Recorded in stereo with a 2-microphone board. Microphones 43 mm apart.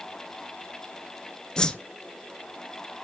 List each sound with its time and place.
1.6 s a whoosh: 20° left (ahead or behind), 0.6 m